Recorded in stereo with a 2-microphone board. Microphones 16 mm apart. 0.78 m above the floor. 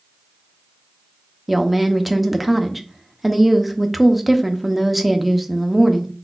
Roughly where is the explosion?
No explosion in this recording.